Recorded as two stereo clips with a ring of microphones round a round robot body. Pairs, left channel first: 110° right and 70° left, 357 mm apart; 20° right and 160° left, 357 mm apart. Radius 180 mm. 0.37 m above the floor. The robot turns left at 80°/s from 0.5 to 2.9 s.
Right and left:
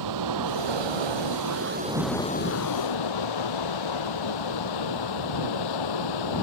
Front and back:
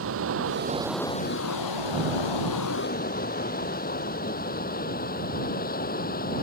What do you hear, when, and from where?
0.0 s running water: 105° left; by 6.5 s 90° right